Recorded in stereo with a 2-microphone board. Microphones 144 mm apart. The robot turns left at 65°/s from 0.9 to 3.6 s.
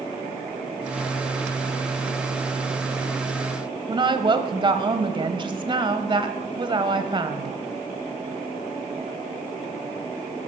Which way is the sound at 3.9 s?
35° right (ahead or behind).